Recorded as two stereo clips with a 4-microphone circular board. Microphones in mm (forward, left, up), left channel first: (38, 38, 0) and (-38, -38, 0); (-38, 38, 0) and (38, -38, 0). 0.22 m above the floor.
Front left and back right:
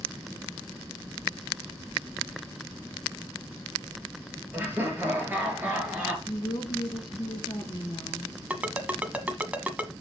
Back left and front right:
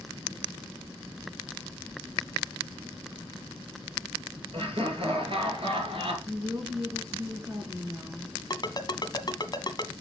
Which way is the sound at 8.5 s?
155° left.